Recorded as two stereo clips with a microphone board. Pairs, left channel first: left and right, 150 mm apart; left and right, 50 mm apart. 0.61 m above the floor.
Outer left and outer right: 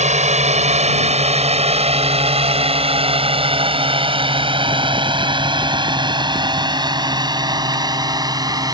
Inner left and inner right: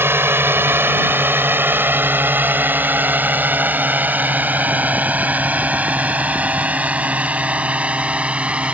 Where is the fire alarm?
No fire alarm in this recording.